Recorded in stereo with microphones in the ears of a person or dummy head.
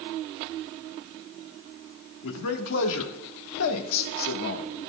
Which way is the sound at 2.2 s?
80° left.